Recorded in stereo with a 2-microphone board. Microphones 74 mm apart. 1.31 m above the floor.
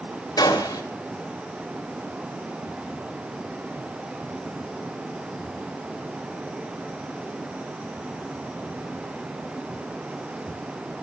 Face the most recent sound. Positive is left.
turn(degrees=65)  # may be behind; listen again after turning